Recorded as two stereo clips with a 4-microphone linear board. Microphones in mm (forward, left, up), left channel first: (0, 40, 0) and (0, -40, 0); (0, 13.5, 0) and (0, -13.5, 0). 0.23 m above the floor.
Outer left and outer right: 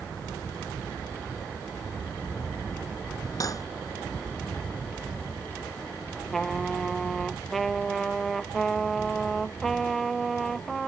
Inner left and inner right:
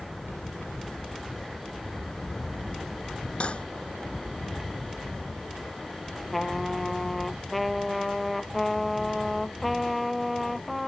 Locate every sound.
3.4 s cutlery clinking: 45° left (ahead or behind)
6.3 s a trumpet: centre (ahead or behind)